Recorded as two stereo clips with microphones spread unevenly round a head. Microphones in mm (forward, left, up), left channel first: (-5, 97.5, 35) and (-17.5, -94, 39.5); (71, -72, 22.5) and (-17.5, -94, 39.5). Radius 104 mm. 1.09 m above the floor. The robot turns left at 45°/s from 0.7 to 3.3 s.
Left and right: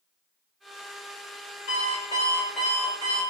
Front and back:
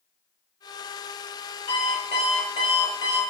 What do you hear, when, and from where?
1.7 s an alarm clock: 40° left, 2.0 m; by 3.2 s 30° right, 2.0 m